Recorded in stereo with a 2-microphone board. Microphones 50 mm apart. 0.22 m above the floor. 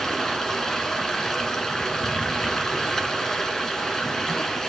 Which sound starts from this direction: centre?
Running water, at 0.0 s.